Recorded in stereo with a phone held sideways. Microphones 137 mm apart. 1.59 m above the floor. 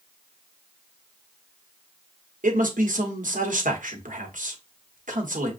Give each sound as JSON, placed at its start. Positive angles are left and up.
{"t": 2.4, "sound": "a man speaking", "side_deg": -70, "distance_m": 1.1}